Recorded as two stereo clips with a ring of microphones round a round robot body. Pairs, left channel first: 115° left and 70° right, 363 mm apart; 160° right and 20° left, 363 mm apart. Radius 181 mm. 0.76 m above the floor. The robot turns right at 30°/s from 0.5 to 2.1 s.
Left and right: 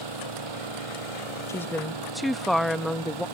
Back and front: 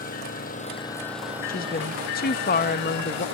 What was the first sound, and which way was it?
An engine running, 90° right.